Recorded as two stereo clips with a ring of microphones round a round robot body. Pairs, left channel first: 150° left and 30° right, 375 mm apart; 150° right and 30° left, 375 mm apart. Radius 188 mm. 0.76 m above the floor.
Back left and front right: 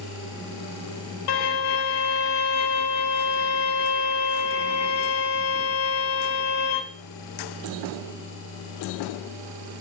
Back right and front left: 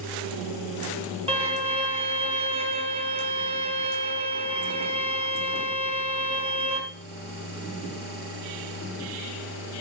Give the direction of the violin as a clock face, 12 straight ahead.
8 o'clock.